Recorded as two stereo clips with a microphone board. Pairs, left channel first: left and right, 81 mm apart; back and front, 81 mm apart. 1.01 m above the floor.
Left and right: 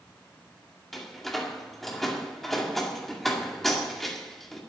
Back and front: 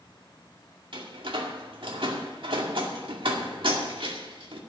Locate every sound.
0.9 s a door slam: straight ahead, 2 m